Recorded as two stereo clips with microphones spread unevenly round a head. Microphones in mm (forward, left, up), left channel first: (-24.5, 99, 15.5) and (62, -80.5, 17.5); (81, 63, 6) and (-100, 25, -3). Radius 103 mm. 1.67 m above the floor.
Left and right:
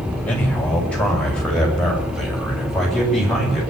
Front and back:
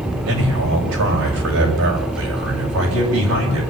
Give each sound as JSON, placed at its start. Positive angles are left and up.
{"t": 0.3, "sound": "a man speaking", "azimuth_deg": -160, "distance_m": 7.5}